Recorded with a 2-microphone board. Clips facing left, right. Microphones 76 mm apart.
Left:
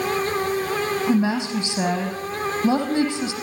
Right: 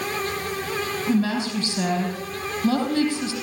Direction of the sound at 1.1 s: 20° left (ahead or behind).